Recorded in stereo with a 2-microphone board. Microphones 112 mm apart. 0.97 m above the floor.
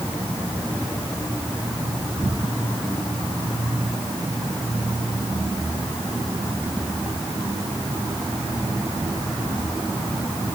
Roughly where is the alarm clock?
I don't hear an alarm clock.